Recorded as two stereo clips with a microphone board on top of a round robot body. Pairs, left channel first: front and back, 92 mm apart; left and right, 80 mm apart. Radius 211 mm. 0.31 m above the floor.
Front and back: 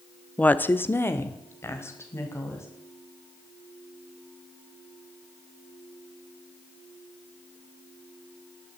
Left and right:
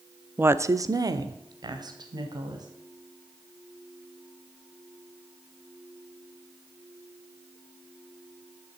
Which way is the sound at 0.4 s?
60° right.